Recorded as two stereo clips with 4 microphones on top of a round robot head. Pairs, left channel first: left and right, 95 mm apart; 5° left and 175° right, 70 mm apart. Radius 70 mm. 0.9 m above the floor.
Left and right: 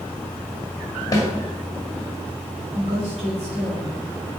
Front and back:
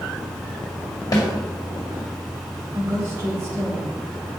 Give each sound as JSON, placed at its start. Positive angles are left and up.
{"t": 1.1, "sound": "a snare drum", "azimuth_deg": 40, "distance_m": 1.9}
{"t": 2.7, "sound": "a woman speaking", "azimuth_deg": -110, "distance_m": 3.0}